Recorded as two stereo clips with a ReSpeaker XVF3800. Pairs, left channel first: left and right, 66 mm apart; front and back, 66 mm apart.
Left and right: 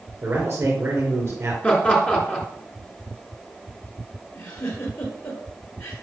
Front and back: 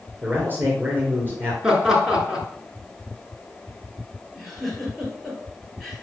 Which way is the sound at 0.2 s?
135° right.